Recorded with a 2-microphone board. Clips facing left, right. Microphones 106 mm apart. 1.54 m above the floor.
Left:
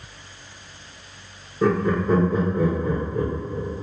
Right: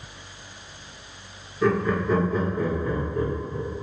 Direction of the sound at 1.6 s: 45° left (ahead or behind).